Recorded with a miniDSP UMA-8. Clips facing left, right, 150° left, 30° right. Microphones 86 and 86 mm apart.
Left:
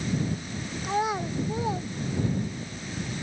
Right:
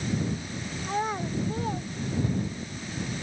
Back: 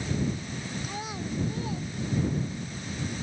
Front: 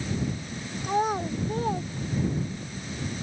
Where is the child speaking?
10° left; by 2.7 s 15° left.